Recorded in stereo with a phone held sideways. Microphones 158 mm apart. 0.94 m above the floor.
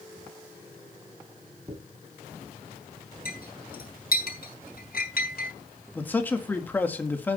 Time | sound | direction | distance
1.7 | a dropped coin | 40° right (ahead or behind) | 2.5 m
3.2 | a clink | 80° left | 3.5 m
6.0 | a man speaking | 10° left (ahead or behind) | 1.8 m